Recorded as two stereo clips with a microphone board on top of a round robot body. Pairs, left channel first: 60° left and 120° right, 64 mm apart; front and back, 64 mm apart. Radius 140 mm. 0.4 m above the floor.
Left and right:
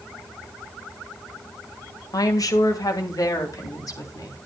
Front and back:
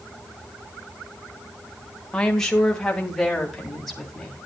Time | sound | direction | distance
2.1 | a woman speaking | 80° left | 2 m